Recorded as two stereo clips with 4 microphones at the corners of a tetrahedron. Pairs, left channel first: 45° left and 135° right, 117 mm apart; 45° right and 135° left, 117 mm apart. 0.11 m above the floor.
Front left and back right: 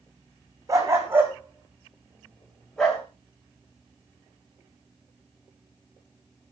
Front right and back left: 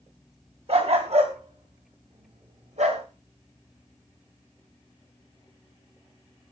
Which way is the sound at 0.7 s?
165° left.